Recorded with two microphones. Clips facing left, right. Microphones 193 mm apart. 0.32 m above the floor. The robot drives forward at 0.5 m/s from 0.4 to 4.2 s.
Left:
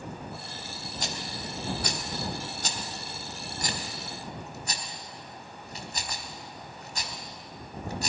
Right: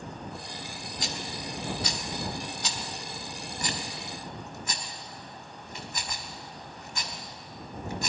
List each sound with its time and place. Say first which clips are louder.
1.0 s a rattle: right 1 dB; 45° left (ahead or behind), 1.3 m; by 8.1 s 35° left (ahead or behind), 1.7 m